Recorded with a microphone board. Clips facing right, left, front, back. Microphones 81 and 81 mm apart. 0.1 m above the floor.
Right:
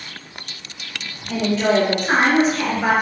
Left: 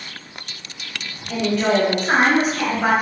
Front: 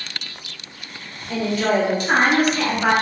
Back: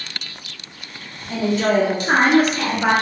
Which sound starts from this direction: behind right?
A woman speaking, at 1.3 s.